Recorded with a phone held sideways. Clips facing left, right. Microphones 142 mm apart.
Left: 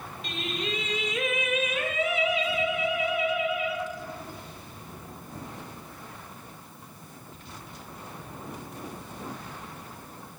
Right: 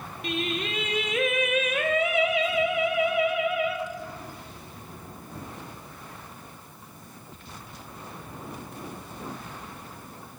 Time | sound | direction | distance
0.2 | singing | 60° right (ahead or behind) | 1.0 m